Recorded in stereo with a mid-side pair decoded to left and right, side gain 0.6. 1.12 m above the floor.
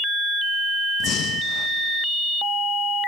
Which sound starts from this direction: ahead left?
Breathing, at 1.0 s.